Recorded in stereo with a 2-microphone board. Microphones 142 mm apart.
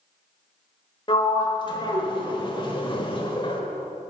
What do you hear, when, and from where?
1.1 s a sliding door: 35° left (ahead or behind), 1.1 m